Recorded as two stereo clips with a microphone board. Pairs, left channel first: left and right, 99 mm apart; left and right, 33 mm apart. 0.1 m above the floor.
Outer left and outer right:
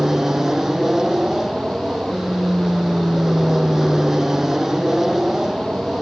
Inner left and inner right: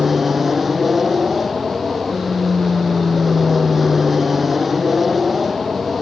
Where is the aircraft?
5° right (ahead or behind).